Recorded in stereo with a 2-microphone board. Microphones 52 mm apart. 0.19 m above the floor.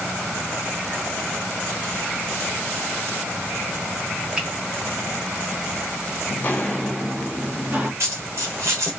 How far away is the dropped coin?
About 1.1 m.